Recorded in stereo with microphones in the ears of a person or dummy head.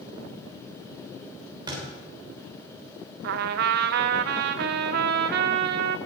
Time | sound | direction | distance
1.7 | a thud | 25° right (ahead or behind) | 3.5 m
3.2 | a trumpet | 60° right (ahead or behind) | 0.6 m